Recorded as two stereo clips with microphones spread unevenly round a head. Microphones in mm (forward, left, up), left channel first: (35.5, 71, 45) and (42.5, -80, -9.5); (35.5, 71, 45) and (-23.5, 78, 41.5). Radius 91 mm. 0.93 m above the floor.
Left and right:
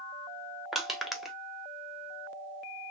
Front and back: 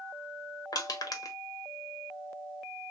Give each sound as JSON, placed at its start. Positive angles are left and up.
{"t": 0.7, "sound": "crushing", "azimuth_deg": -5, "distance_m": 1.4}